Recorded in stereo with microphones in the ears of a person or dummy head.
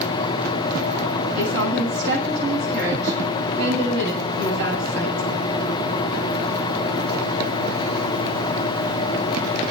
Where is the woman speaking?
65° right (ahead or behind), 9 m.